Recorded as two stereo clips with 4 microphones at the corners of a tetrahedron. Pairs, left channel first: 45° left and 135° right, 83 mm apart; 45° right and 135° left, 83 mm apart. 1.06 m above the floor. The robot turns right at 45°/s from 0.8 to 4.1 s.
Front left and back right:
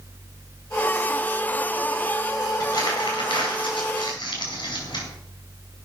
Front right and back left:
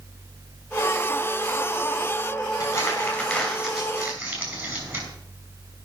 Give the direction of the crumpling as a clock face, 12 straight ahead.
12 o'clock.